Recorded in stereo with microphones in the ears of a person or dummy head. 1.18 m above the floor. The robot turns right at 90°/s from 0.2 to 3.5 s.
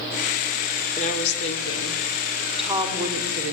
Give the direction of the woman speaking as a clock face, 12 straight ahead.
11 o'clock.